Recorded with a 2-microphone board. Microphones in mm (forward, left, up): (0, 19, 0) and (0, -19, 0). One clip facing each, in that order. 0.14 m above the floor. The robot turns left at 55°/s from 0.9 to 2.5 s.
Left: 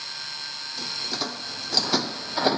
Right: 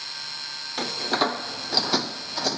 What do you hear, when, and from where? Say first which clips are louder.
0.8 s a door slam: right 8 dB; 60° right (ahead or behind); by 2.6 s 25° left (ahead or behind)